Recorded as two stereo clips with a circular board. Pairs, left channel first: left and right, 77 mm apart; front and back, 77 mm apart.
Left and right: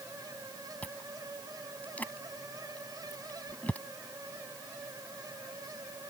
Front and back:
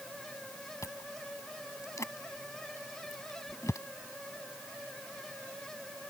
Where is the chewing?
25° left.